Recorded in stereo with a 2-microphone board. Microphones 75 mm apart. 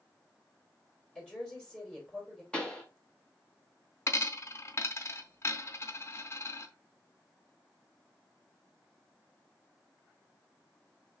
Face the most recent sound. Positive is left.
turn(degrees=35)  # may be behind; listen again after turning